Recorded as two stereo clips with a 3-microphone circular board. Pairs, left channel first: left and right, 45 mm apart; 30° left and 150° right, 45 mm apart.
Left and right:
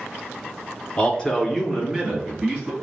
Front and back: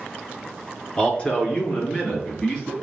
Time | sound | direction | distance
1.0 | a man speaking | 50° left | 1.1 m